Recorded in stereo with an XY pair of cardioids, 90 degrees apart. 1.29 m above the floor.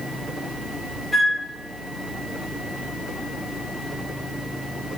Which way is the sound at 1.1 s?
15° right.